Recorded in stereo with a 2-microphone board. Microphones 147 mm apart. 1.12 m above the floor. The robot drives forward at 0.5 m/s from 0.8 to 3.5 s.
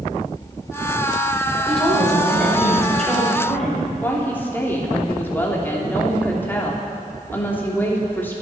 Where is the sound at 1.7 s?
5° left (ahead or behind), 5.5 m.